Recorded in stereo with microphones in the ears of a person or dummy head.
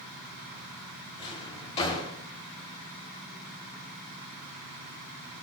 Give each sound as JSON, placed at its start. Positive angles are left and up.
{"t": 1.2, "sound": "a drawer", "side_deg": 30, "distance_m": 2.5}